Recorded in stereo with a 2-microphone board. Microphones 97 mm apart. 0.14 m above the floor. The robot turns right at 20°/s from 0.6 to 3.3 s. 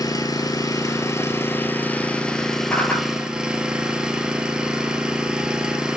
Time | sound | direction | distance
0.0 | an engine running | 135° left | 1.0 m
2.7 | a whoosh | 20° left (ahead or behind) | 1.0 m